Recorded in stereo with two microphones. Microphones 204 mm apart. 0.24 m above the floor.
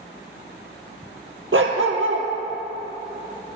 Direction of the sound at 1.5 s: 85° right.